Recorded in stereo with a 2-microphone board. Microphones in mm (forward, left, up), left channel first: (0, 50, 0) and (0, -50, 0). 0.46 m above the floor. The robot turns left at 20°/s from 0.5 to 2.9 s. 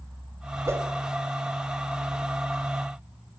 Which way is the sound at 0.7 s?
30° right (ahead or behind).